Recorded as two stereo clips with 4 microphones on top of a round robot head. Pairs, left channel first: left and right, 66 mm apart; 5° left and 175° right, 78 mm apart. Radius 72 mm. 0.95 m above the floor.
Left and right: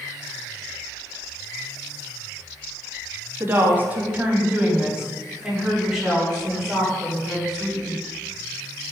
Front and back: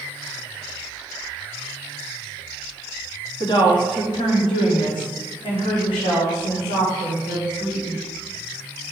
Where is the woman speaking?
35° right, 1.8 m; by 8.0 s 5° left, 4.5 m.